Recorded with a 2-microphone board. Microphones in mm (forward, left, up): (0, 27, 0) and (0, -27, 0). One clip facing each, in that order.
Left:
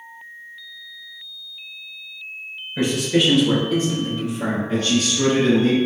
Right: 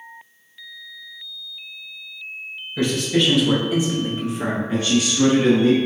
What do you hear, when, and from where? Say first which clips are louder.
2.8 s a man speaking: left 1 dB; 20° left (ahead or behind), 1.8 m; by 4.6 s 40° right (ahead or behind), 1.6 m
4.7 s a man speaking: right 1 dB; 15° right (ahead or behind), 1.8 m